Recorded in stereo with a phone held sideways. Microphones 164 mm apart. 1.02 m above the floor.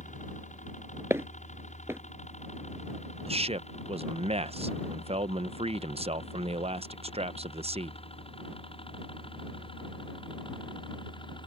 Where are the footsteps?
15° right (ahead or behind).